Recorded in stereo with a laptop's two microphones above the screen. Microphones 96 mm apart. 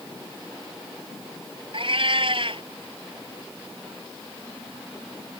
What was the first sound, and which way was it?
A cat meowing, 60° right (ahead or behind).